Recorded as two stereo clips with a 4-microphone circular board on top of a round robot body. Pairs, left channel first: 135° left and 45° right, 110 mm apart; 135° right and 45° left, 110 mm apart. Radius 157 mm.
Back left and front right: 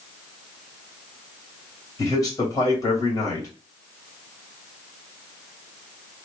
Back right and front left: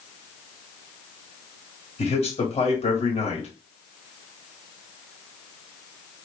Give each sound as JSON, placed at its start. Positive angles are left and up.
{"t": 2.0, "sound": "a man speaking", "azimuth_deg": -165, "distance_m": 1.8}